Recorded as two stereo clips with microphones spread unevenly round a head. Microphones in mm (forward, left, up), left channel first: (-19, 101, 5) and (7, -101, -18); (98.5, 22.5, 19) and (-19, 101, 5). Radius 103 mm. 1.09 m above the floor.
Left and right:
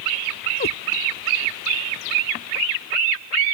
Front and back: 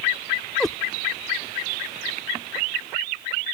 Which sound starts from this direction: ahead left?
A cat meowing, at 0.6 s.